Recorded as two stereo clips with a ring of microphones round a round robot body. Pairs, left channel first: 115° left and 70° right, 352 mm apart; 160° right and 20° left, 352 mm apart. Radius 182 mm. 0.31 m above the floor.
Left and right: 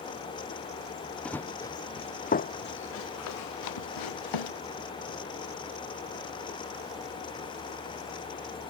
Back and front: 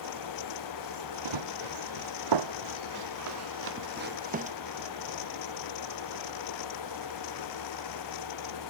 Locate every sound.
1.2 s running footsteps: 25° left; by 4.5 s 95° left